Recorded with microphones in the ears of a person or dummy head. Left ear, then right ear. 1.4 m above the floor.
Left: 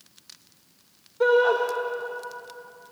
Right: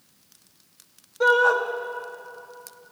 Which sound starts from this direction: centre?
A shout, at 1.2 s.